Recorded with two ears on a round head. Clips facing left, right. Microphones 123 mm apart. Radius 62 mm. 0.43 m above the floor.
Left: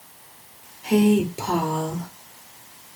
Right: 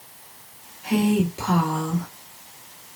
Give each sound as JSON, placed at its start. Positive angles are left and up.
{"t": 0.8, "sound": "a woman speaking", "side_deg": 30, "distance_m": 1.3}